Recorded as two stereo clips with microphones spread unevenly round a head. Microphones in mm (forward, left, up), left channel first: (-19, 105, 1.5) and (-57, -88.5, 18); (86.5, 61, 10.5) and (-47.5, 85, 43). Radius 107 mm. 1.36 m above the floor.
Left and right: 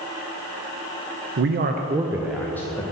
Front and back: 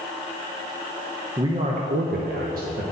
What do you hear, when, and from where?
1.4 s a man speaking: 115° right, 0.6 m; by 2.8 s 150° left, 0.9 m